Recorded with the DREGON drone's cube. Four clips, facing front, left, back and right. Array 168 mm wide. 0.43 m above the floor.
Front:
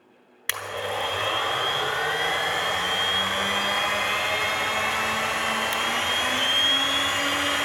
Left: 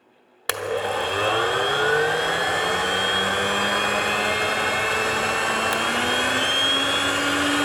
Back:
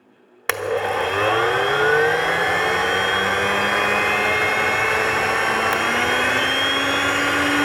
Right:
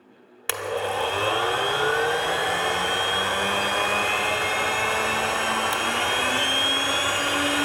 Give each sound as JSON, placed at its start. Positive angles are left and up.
{"t": 0.5, "sound": "a blender", "azimuth_deg": 155, "distance_m": 0.9}